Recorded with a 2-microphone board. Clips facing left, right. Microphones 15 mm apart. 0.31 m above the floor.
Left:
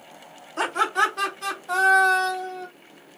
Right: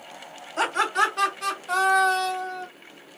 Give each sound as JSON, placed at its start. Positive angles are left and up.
{"t": 0.6, "sound": "laughter", "side_deg": -35, "distance_m": 2.0}